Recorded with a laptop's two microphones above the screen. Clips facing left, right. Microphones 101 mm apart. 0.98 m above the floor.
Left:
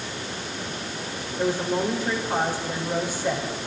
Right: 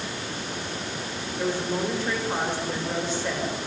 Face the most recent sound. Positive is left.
turn(degrees=10)  # may be behind; listen again after turning